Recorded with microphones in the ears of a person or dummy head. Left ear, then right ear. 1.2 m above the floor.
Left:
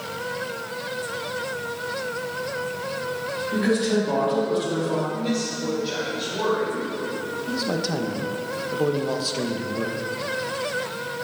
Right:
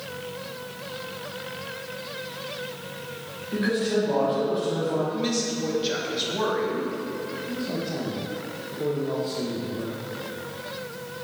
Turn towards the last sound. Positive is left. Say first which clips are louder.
# left 7 dB
turn(degrees=65)  # may be behind; listen again after turning